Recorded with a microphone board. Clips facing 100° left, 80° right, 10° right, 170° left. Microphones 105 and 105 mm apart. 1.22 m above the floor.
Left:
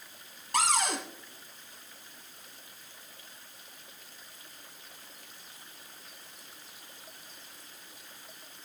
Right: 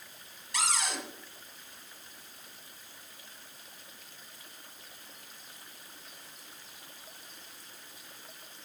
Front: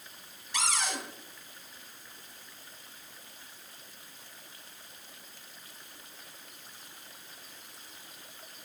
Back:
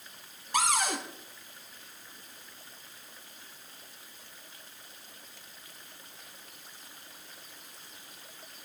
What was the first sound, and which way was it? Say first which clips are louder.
A cupboard door: left 5 dB, back 5 dB; 130° left.